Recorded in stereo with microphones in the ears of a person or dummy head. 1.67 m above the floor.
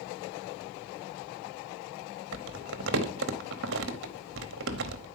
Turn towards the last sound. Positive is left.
turn(degrees=-65)  # may be behind; listen again after turning